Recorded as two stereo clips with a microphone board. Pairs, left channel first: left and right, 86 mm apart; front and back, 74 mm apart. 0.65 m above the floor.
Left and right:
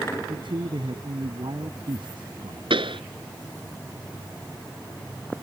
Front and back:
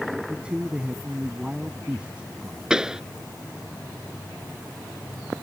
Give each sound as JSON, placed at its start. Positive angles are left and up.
{"t": 0.3, "sound": "a man speaking", "azimuth_deg": -105}
{"t": 2.7, "sound": "a pop", "azimuth_deg": -100}